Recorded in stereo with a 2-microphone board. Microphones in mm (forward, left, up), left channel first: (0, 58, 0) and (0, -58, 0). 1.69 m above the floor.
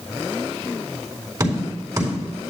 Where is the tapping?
30° right (ahead or behind), 3.5 m.